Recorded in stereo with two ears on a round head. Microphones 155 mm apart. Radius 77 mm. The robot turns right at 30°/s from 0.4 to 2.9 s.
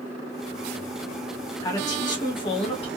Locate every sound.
1.6 s a man speaking: 35° left, 1.6 m; by 2.9 s 70° left, 1.6 m